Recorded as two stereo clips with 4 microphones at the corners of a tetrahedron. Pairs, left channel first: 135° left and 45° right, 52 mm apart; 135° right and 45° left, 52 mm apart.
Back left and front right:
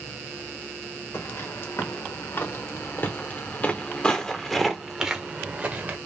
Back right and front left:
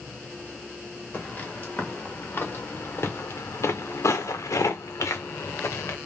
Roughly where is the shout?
No shout in this recording.